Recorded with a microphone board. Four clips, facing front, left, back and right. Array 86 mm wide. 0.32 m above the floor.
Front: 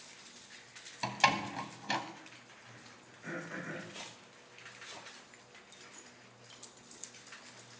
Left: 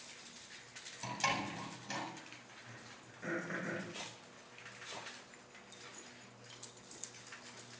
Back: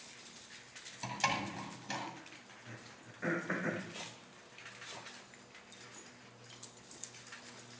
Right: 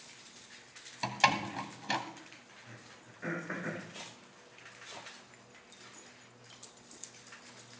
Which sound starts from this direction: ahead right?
A door slam, at 1.0 s.